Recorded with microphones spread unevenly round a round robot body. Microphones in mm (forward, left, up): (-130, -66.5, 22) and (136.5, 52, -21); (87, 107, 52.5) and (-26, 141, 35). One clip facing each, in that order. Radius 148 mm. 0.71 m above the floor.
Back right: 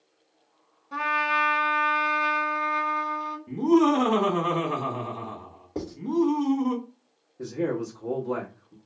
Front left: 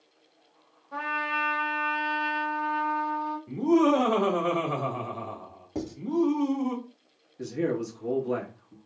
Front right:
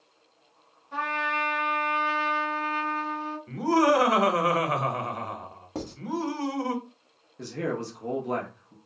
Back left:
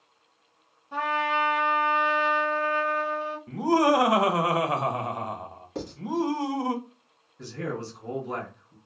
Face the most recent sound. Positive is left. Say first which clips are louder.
# even, front right 3 dB
turn(degrees=5)